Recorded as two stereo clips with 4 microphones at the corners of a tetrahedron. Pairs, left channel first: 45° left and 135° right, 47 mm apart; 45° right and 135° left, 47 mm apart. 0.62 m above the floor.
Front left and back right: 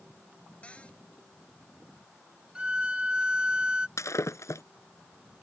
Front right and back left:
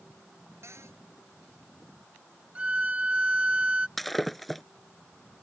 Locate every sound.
0.6 s a cupboard door: 110° left
2.5 s a violin: 175° left
4.0 s breaking glass: 40° left